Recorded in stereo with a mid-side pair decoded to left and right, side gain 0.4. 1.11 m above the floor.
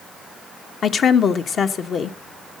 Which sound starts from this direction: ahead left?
A woman speaking, at 0.8 s.